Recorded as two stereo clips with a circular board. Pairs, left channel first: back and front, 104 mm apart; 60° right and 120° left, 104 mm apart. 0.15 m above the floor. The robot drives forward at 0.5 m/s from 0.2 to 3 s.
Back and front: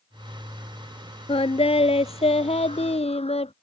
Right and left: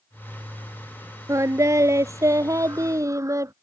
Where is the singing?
Straight behind.